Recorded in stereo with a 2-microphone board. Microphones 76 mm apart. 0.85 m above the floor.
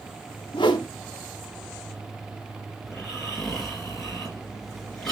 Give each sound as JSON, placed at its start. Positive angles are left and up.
{"t": 0.5, "sound": "a whoosh", "side_deg": 80, "distance_m": 0.7}
{"t": 2.8, "sound": "snoring", "side_deg": 5, "distance_m": 2.0}